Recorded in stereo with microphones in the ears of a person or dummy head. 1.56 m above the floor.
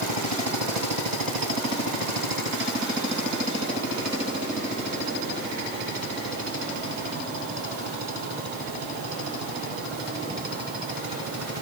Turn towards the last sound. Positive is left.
No sound to turn to.